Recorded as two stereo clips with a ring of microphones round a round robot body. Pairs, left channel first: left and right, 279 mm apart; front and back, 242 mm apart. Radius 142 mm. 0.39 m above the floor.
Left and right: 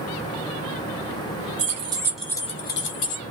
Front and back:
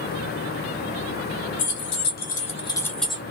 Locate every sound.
1.6 s keys jangling: 30° right, 1.2 m; by 3.2 s 95° left, 1.2 m